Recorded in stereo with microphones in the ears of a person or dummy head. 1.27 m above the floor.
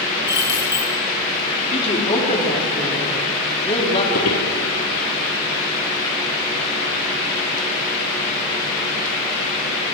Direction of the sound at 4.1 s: 45° left (ahead or behind).